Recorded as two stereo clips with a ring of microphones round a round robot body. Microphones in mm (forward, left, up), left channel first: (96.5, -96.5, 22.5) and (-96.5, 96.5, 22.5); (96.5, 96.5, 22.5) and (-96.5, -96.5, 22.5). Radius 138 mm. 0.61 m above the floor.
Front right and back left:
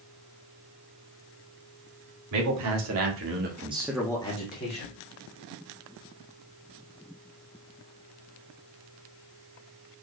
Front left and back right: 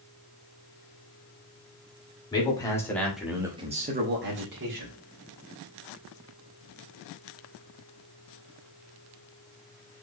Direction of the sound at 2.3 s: 120° left.